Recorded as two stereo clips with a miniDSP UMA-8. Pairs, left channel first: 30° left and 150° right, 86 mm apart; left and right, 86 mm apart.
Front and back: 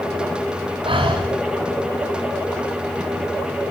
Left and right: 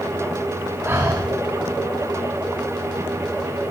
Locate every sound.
0.8 s breathing: 150° right, 9 m